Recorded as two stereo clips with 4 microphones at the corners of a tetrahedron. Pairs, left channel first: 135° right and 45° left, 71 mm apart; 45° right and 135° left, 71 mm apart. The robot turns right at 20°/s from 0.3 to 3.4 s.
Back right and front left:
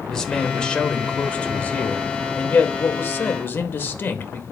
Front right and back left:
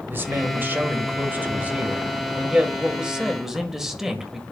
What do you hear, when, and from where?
0.1 s a man speaking: 150° left, 1.6 m; by 4.4 s 145° right, 1.6 m